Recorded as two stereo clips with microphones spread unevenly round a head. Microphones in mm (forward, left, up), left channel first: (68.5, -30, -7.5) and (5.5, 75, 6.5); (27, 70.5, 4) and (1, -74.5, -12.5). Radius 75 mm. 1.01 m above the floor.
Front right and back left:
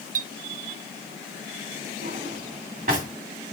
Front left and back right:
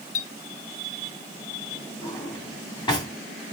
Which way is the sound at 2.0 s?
140° left.